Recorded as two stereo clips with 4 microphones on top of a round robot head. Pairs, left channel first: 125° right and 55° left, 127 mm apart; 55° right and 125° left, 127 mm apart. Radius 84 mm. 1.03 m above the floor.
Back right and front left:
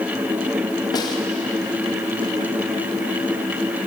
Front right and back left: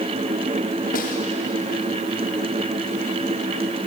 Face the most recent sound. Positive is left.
turn(degrees=-65)